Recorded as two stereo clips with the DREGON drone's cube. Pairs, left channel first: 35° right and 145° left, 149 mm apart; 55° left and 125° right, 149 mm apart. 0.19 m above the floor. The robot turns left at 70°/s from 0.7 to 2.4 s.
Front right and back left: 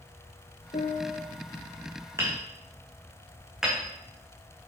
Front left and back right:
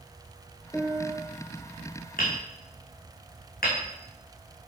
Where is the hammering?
75° left, 2.5 m; by 4.7 s 60° left, 2.5 m.